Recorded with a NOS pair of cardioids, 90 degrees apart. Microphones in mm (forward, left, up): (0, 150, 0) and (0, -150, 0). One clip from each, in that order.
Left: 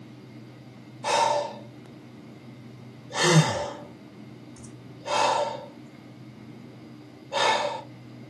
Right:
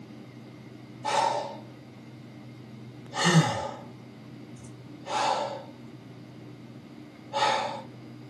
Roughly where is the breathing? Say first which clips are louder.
Left 3 dB; ahead left.